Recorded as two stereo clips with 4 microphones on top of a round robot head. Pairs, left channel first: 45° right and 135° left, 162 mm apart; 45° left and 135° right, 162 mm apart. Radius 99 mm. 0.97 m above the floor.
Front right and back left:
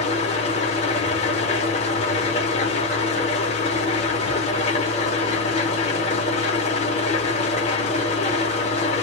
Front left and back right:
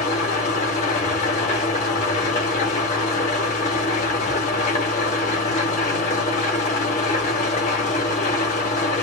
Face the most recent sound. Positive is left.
turn(degrees=5)